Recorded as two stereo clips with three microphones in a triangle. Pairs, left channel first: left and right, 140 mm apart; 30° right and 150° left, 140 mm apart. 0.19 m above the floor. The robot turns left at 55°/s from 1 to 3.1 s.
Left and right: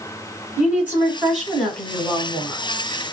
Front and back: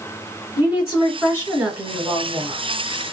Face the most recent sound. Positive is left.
turn(degrees=100)